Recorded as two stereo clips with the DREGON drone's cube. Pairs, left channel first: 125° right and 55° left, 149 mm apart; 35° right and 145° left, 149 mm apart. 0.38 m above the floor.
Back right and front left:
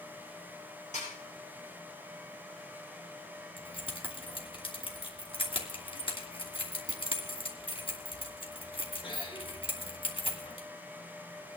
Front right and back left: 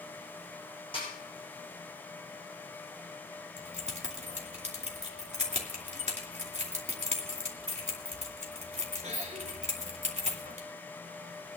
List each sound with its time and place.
0.9 s a snare drum: 85° right, 9.5 m
3.6 s keys jangling: 175° right, 2.5 m